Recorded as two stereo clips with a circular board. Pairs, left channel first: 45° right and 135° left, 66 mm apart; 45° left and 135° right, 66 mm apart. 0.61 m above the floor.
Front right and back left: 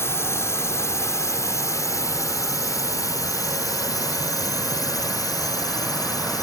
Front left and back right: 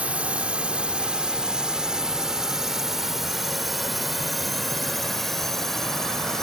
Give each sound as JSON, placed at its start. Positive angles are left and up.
{"t": 0.0, "sound": "a drone", "azimuth_deg": -70}